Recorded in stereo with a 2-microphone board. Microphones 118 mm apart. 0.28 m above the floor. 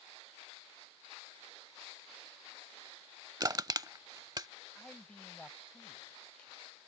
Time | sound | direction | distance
3.4 | crushing | 35° right (ahead or behind) | ?
4.8 | a man speaking | 10° left (ahead or behind) | ?